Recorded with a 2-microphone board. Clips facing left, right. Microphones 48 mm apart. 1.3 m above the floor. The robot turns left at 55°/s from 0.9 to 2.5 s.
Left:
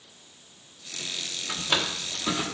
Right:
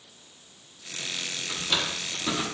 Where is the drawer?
35° left (ahead or behind), 0.9 m; by 2.5 s 5° left (ahead or behind), 0.9 m.